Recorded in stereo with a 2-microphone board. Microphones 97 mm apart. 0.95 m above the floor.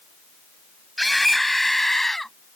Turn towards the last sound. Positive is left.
turn(degrees=0)  # may be behind; listen again after turning